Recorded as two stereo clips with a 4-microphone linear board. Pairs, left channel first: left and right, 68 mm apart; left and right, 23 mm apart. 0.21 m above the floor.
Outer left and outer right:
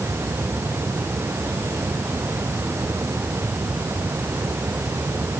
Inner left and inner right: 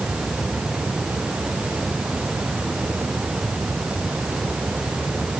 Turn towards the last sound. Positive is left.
No sound to turn to.